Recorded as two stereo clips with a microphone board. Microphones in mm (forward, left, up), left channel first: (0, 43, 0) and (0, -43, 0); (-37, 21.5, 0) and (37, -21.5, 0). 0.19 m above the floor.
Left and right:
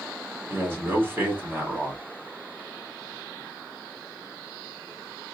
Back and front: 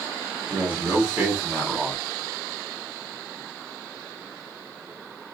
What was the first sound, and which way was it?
A man speaking, 65° right.